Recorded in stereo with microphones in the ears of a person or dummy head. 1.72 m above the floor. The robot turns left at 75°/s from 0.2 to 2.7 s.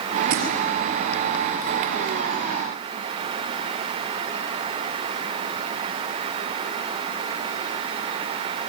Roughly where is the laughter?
No laughter in this recording.